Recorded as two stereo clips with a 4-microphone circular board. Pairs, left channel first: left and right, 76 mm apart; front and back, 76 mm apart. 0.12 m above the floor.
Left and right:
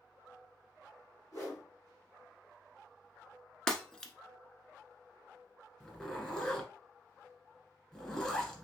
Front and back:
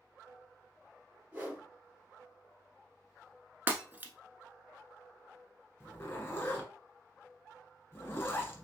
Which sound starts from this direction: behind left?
A whoosh, at 1.3 s.